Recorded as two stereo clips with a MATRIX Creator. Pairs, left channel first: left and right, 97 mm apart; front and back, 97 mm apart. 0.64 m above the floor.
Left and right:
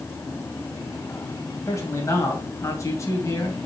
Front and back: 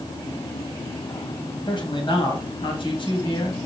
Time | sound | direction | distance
1.7 | a man speaking | 35° left | 3 m